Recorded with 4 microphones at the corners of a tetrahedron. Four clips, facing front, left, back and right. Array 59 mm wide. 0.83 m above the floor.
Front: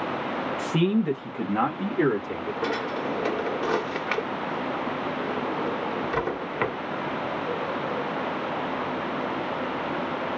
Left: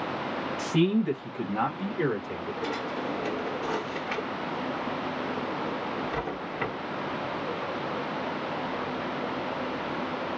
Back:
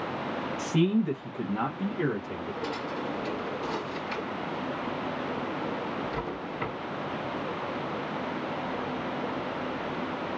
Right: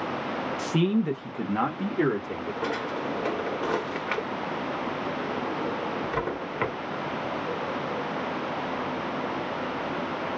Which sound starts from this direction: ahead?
A man speaking, at 0.6 s.